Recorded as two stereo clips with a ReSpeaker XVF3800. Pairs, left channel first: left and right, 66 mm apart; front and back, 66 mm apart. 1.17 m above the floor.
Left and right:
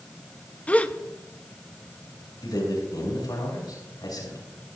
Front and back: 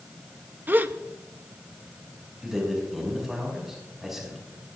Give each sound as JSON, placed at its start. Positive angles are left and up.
{"t": 0.7, "sound": "a gasp", "azimuth_deg": 145, "distance_m": 0.6}
{"t": 2.4, "sound": "a man speaking", "azimuth_deg": 95, "distance_m": 6.0}